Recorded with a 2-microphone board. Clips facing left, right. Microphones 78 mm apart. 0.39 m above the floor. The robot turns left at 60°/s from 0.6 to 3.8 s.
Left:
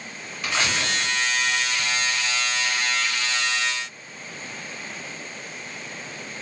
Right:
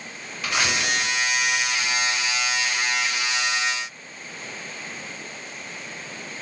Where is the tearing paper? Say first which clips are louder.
Right 1 dB; 5° right (ahead or behind), 1.8 m; by 2.1 s 45° left (ahead or behind), 1.8 m.